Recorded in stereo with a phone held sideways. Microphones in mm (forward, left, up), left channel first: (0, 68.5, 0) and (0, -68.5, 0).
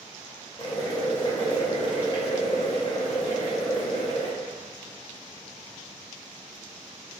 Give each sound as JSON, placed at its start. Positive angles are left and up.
{"t": 0.6, "sound": "boiling", "side_deg": 35, "distance_m": 0.8}